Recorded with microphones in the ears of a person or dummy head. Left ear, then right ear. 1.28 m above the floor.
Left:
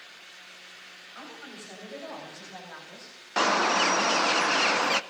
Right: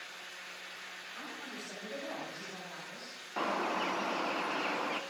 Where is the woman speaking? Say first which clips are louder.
Left 2 dB; 20° left (ahead or behind), 7 m; by 3.2 s 10° left (ahead or behind), 5.5 m.